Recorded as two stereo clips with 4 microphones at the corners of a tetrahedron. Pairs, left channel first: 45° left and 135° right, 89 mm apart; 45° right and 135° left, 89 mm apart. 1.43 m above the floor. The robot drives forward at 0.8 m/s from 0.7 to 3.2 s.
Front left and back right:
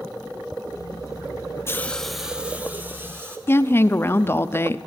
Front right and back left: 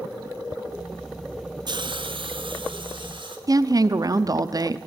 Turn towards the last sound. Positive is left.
turn(degrees=105)